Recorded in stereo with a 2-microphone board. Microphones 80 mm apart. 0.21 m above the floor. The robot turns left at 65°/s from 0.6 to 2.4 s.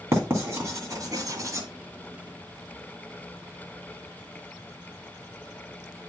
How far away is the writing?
About 2 m.